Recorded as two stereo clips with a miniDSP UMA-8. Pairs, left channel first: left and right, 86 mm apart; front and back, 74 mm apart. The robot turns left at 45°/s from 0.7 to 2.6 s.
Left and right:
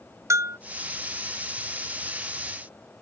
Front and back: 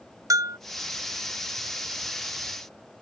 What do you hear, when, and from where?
0.3 s a bell: 140° right